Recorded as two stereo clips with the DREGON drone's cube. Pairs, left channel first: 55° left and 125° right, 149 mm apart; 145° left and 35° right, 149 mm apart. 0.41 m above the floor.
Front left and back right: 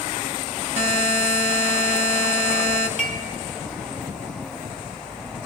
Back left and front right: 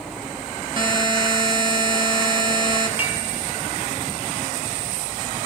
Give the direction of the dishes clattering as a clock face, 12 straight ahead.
11 o'clock.